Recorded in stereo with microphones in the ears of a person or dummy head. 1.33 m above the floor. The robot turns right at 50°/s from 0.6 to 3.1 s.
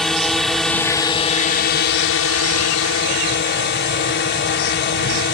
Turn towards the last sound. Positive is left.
turn(degrees=125)